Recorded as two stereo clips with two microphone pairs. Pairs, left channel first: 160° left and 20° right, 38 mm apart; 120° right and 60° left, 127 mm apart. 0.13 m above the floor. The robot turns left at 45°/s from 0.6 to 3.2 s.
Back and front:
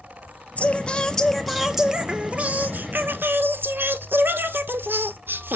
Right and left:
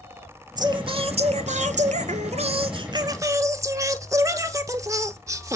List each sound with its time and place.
0.6 s singing: 115° left, 1.1 m; by 5.6 s 5° right, 1.1 m